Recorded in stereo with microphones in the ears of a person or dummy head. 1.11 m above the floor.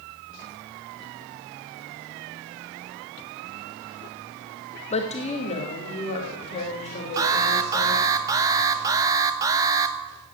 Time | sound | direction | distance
4.9 | a woman speaking | 30° left (ahead or behind) | 1.2 m
7.2 | an alarm | 20° right (ahead or behind) | 0.8 m